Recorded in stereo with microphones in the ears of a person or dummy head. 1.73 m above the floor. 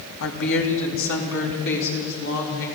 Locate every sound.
0.2 s a woman speaking: 70° left (ahead or behind), 2.5 m